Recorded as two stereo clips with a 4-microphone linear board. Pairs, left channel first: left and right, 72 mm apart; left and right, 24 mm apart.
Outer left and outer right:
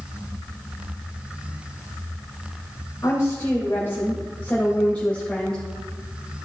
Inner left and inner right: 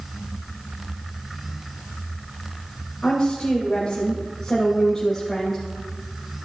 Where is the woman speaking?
40° left (ahead or behind), 2.5 m; by 5.6 s 10° left (ahead or behind), 2.5 m.